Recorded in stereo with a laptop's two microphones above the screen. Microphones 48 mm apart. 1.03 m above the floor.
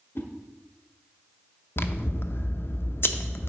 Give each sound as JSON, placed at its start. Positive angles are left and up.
{"t": 0.1, "sound": "a whoosh", "side_deg": 55, "distance_m": 0.9}
{"t": 1.8, "sound": "scissors", "side_deg": 50, "distance_m": 0.5}